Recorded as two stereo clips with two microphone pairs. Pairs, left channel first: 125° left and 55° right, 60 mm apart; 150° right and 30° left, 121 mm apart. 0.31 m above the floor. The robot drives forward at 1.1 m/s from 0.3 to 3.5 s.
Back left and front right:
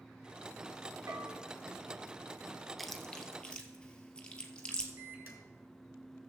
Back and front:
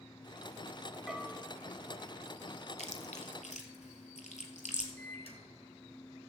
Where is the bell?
60° right, 1.6 m; by 1.4 s 75° right, 1.5 m.